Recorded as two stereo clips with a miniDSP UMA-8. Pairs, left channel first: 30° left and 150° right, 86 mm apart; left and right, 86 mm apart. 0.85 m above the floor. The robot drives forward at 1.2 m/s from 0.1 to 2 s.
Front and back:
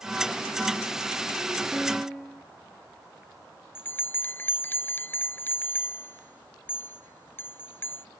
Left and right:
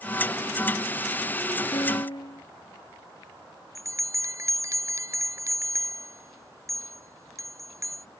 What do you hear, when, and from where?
1.7 s a piano: 120° left
3.8 s a bell: 35° right